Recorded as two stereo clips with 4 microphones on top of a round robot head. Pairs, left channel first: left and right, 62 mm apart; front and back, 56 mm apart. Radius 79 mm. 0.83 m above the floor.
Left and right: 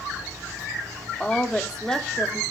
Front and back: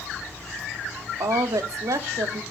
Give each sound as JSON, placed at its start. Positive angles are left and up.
{"t": 1.2, "sound": "a woman speaking", "azimuth_deg": 175, "distance_m": 1.5}